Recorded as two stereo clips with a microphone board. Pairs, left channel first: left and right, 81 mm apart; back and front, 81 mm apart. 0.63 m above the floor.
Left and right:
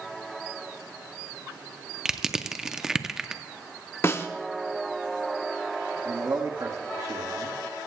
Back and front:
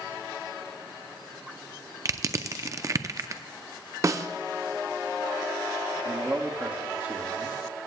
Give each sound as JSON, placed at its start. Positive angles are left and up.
{"t": 2.0, "sound": "crushing", "azimuth_deg": -10, "distance_m": 0.5}
{"t": 4.0, "sound": "a snare drum", "azimuth_deg": 40, "distance_m": 0.7}
{"t": 6.0, "sound": "a man speaking", "azimuth_deg": -65, "distance_m": 1.3}